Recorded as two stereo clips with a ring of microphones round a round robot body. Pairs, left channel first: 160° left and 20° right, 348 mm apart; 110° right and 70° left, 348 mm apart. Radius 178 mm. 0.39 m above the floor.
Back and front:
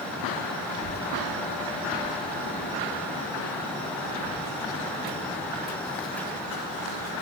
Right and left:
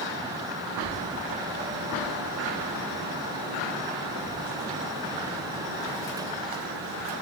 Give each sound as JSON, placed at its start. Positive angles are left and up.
{"t": 0.7, "sound": "a child speaking", "azimuth_deg": 160, "distance_m": 9.0}